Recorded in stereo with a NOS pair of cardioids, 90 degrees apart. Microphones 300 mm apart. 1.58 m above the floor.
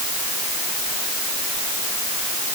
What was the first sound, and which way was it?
Only background noise.